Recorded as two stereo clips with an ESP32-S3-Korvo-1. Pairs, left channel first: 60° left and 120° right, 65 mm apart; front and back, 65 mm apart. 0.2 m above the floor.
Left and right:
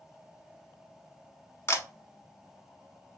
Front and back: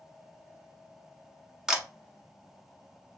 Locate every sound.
1.7 s a camera shutter: 100° left, 0.7 m